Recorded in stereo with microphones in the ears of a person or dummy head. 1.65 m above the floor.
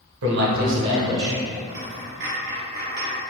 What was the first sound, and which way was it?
A man speaking, 70° right (ahead or behind).